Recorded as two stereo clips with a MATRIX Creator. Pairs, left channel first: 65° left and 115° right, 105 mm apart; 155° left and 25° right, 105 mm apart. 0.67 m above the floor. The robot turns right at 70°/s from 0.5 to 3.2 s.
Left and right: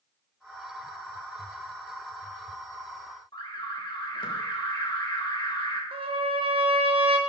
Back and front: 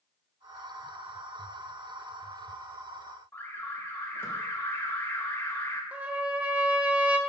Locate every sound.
3.3 s an alarm: 95° left, 1.3 m
5.9 s a trumpet: 100° right, 0.7 m